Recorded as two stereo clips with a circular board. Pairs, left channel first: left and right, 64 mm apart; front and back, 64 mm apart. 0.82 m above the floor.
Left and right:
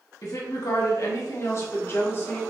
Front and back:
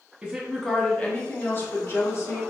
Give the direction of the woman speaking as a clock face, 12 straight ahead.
8 o'clock.